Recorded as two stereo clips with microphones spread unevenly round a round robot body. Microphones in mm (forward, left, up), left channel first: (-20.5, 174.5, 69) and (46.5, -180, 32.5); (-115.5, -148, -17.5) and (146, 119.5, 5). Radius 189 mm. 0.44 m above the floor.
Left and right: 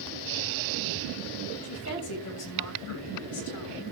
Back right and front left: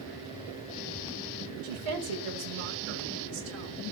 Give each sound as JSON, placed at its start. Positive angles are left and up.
{"t": 1.6, "sound": "a woman speaking", "azimuth_deg": 50, "distance_m": 7.0}